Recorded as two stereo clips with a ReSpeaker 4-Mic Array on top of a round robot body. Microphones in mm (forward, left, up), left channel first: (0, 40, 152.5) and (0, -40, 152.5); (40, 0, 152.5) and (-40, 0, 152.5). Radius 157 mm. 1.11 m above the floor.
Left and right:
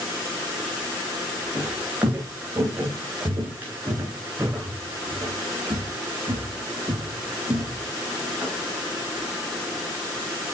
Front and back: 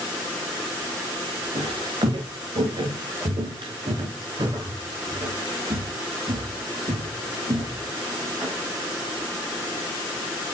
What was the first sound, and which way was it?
Footsteps, 155° right.